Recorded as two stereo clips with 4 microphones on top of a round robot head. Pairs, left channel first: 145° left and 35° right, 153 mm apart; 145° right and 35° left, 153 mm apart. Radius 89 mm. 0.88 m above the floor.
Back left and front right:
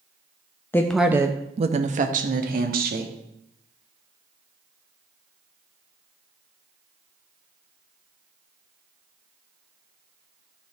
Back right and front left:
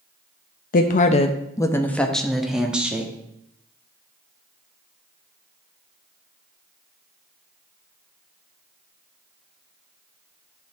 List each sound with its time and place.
0.7 s a woman speaking: 140° right, 0.6 m; by 3.1 s 50° right, 1.5 m